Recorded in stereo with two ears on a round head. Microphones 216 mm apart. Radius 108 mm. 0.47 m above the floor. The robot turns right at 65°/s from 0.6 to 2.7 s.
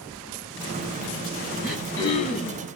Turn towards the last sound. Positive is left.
turn(degrees=55)